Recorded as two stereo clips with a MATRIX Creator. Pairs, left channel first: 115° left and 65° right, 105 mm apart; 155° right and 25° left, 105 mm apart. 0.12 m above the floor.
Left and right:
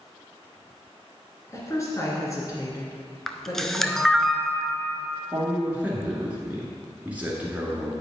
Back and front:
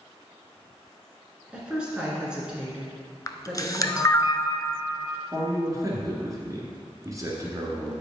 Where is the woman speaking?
95° left, 1.8 m.